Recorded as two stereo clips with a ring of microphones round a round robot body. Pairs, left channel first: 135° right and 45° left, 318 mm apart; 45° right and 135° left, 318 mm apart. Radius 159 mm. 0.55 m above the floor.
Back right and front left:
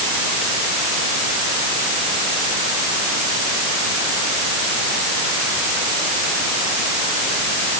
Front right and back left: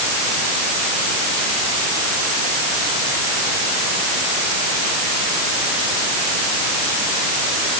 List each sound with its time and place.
Only background noise.